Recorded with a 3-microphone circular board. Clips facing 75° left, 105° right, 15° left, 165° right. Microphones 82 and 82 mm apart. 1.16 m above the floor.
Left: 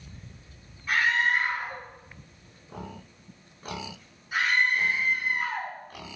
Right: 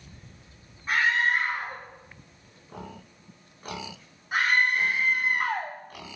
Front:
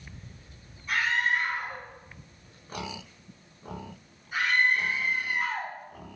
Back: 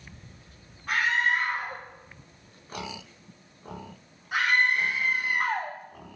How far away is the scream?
About 3.5 m.